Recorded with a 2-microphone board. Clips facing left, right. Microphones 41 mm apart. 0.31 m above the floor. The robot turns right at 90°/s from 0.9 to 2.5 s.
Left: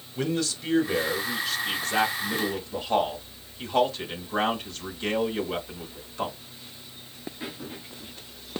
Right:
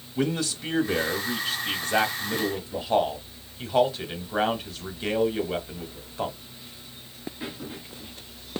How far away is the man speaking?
About 1.2 m.